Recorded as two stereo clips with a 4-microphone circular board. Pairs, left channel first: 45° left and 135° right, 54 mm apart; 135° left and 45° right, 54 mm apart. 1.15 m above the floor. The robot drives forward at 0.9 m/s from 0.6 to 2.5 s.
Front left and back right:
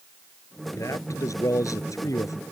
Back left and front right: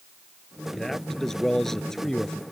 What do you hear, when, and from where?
0.8 s a man speaking: 50° left